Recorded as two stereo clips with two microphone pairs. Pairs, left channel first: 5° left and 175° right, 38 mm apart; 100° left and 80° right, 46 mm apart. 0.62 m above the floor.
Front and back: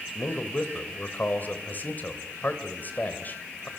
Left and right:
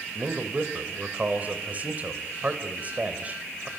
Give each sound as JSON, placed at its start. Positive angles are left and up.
{"t": 0.1, "sound": "a man speaking", "azimuth_deg": -30, "distance_m": 3.0}